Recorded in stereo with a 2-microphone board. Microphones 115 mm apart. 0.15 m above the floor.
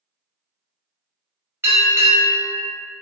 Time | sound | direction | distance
1.6 | a bell | 20° right (ahead or behind) | 1.8 m